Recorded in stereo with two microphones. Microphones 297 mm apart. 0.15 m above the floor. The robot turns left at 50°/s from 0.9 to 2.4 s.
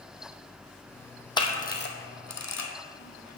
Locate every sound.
1.4 s a camera shutter: 15° left (ahead or behind), 1.1 m; by 3.4 s 65° left (ahead or behind), 1.1 m